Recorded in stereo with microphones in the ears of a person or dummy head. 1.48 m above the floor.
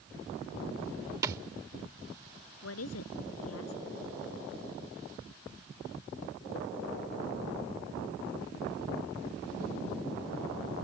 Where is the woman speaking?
85° left.